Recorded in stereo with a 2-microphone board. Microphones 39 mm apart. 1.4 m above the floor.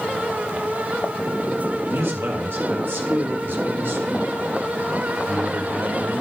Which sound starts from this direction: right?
A man speaking, at 1.9 s.